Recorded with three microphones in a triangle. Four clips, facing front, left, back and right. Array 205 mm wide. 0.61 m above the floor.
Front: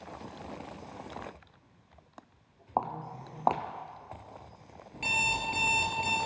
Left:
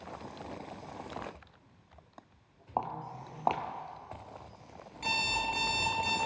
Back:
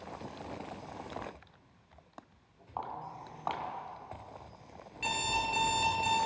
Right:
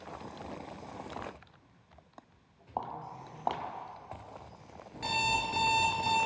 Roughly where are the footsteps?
Ahead.